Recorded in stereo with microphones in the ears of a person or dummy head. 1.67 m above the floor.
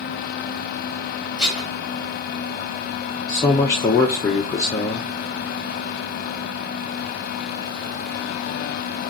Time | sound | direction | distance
1.4 | dishes clattering | 5° right (ahead or behind) | 3 m
3.3 | a man speaking | 20° left (ahead or behind) | 0.7 m